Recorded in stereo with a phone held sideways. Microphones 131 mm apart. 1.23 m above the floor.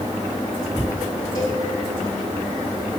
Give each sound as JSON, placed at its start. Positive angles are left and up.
{"t": 1.4, "sound": "a cowbell", "side_deg": 35, "distance_m": 7.0}